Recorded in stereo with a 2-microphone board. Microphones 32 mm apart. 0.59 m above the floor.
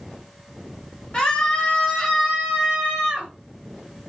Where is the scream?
30° left (ahead or behind), 1.5 m; by 3.3 s 50° right (ahead or behind), 1.4 m.